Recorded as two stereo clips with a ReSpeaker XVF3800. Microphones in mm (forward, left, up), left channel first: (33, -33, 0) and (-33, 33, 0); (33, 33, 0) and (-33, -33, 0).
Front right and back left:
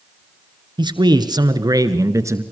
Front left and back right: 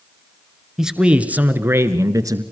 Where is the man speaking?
140° left, 1.7 m; by 2.4 s 175° right, 1.8 m.